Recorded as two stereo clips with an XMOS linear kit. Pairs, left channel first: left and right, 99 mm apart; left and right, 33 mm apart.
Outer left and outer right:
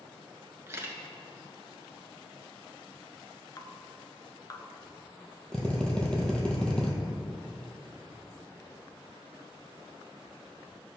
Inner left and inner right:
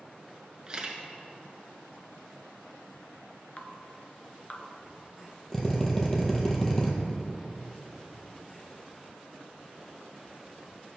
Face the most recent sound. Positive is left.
turn(degrees=10)  # may be behind; listen again after turning